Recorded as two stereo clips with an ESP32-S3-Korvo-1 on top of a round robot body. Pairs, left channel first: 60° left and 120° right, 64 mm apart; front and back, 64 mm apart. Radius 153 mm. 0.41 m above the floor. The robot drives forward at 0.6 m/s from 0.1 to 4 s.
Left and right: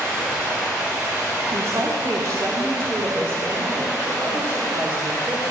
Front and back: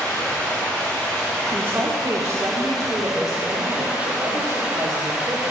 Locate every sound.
0.0 s running water: 60° right, 3 m; by 5.5 s 110° right, 2.5 m
1.5 s a woman speaking: 130° right, 1.1 m; by 5.5 s 165° right, 2 m